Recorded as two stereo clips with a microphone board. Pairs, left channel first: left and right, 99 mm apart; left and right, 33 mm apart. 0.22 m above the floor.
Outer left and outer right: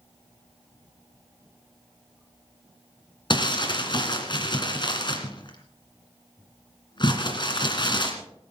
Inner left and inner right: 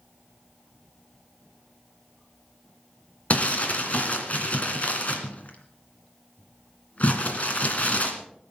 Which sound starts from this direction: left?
Crumpling, at 3.3 s.